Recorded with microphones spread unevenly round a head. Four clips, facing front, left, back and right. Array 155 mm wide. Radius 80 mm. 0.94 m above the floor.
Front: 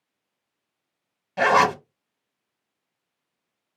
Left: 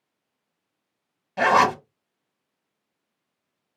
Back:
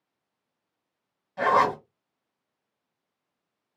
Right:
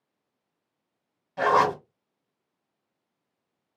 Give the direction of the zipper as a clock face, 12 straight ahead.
12 o'clock.